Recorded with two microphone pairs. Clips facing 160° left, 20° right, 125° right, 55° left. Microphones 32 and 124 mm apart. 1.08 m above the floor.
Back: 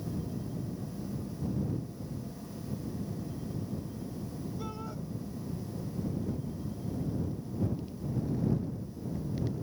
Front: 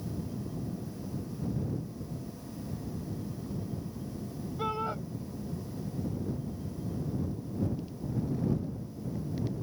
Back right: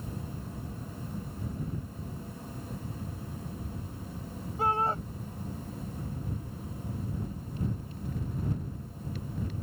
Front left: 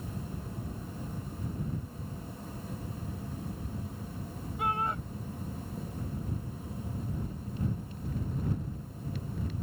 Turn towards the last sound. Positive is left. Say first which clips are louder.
# front 7 dB, back right 4 dB
turn(degrees=-70)